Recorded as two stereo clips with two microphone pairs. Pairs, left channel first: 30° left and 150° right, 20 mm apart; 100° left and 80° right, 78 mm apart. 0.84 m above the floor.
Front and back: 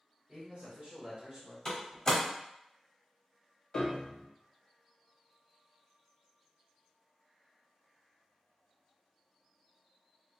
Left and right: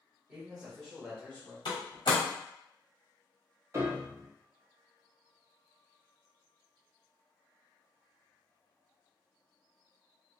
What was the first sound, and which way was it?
A man speaking, 160° right.